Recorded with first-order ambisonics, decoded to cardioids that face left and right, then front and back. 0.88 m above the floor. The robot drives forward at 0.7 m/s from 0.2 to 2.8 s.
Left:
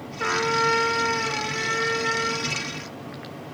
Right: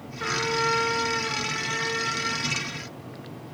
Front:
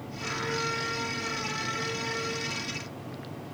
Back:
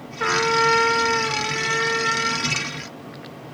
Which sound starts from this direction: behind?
A trumpet, at 0.2 s.